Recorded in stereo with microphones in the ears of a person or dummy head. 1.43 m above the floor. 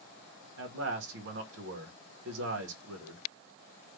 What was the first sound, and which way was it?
A man speaking, 65° right (ahead or behind).